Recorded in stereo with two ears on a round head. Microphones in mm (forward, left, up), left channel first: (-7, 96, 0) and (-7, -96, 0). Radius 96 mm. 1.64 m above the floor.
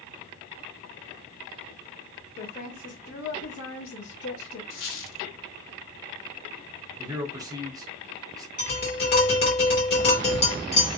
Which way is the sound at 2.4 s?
25° left (ahead or behind).